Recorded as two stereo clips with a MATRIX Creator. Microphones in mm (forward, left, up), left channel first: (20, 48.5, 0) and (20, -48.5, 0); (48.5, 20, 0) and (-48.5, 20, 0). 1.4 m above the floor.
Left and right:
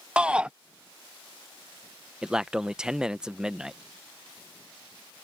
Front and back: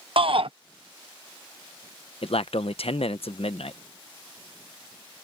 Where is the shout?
170° right.